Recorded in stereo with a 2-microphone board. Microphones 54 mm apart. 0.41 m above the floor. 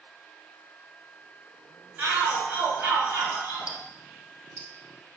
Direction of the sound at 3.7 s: 20° right (ahead or behind).